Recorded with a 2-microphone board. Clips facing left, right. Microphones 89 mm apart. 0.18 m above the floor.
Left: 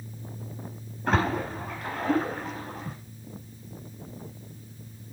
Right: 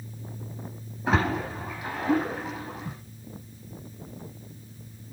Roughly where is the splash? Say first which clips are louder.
Even; centre.